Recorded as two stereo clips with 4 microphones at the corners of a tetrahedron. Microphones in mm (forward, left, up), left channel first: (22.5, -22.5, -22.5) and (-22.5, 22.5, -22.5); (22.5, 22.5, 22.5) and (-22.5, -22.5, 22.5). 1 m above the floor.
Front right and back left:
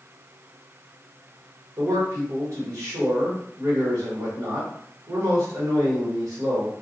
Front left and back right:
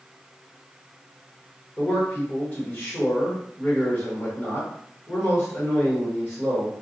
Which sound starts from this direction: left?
A man speaking, at 1.8 s.